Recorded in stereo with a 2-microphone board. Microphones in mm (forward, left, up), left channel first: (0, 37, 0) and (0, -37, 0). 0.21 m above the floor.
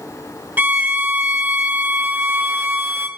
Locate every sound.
0.6 s a violin: 25° right (ahead or behind), 0.8 m